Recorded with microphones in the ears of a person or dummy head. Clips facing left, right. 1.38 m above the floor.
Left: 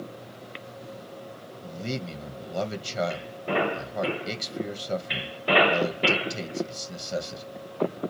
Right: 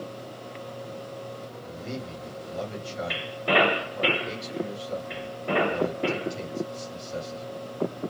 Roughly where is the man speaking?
Left.